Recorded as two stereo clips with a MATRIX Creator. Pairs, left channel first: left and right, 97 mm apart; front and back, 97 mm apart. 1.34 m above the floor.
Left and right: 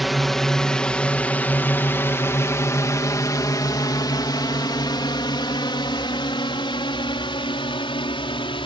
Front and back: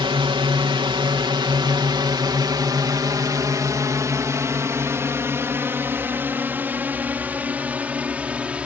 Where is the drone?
Straight behind; by 8.7 s 105° left.